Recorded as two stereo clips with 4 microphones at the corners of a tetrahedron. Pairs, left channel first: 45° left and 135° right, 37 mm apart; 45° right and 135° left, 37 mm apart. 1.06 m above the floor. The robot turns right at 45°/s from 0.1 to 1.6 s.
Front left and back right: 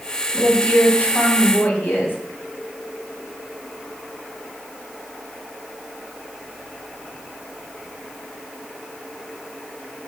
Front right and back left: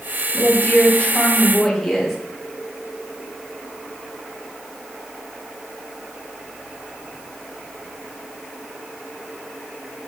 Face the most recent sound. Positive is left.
turn(degrees=40)